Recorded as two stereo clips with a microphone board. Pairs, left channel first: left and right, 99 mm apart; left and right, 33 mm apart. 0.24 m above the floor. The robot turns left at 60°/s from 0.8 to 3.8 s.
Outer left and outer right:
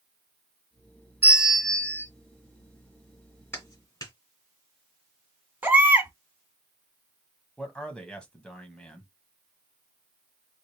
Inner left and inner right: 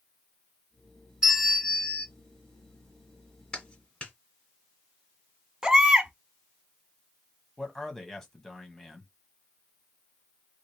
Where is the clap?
25° left (ahead or behind), 2.5 m; by 4.1 s 40° left (ahead or behind), 2.5 m.